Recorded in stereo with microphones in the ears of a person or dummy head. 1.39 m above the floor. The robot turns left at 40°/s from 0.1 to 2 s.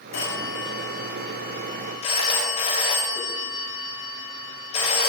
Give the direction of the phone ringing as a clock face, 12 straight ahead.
8 o'clock.